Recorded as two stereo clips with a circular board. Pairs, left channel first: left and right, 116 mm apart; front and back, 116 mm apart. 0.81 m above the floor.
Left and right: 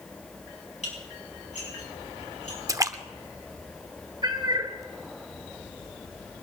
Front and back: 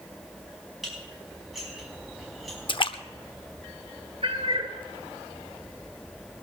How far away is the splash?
About 0.6 m.